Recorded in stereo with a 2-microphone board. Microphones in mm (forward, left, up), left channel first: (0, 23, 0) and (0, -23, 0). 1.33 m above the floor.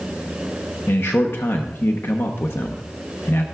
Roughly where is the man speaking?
Left.